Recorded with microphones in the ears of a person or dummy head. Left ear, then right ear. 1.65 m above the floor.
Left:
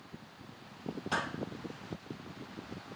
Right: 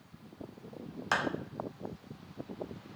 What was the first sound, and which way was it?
A clap, 55° right (ahead or behind).